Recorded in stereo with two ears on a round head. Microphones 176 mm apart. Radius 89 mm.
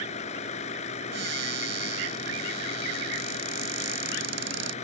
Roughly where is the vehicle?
Left.